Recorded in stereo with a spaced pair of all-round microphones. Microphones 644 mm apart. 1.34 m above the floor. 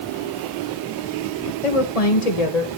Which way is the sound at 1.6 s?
55° left (ahead or behind).